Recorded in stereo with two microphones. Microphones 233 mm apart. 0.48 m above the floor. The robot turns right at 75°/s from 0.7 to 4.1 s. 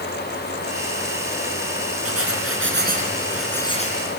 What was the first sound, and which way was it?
Writing, 105° right.